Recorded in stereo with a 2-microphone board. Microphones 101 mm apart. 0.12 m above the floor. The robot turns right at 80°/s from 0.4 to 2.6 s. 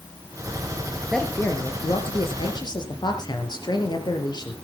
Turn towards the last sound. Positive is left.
turn(degrees=120)